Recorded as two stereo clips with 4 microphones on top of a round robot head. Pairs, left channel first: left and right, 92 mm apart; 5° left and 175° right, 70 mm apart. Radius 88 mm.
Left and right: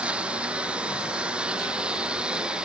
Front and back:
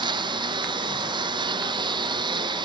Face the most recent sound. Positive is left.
turn(degrees=-170)